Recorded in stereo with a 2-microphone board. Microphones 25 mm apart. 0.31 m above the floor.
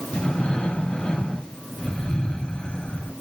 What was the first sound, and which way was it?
Breathing, 35° left (ahead or behind).